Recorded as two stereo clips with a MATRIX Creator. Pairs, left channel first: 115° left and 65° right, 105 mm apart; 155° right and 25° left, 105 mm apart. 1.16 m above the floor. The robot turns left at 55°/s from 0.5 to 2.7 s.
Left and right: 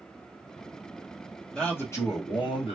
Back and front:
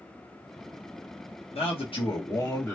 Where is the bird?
No bird in this recording.